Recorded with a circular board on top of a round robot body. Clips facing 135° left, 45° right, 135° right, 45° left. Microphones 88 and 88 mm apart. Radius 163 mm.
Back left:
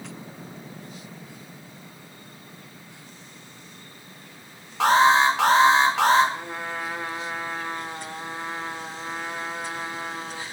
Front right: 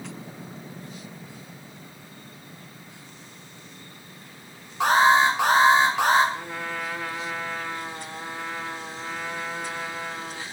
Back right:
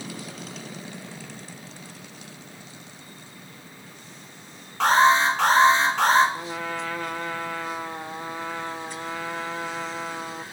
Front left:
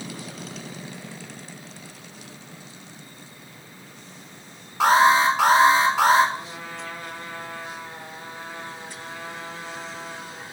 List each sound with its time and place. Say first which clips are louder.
4.8 s an alarm: back left 1 dB, front left 1 dB; 125° left, 4.5 m
6.3 s a trumpet: even, back right 4 dB; 155° right, 1.0 m